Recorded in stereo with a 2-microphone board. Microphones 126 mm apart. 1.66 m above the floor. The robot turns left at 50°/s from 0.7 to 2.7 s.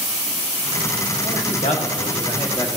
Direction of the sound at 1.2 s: 100° left.